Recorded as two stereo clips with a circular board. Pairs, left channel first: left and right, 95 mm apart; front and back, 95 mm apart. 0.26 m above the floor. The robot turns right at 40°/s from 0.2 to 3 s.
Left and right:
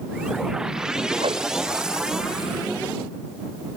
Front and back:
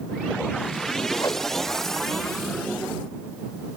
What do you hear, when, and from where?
1.2 s a whoosh: 65° right; by 1.5 s 50° right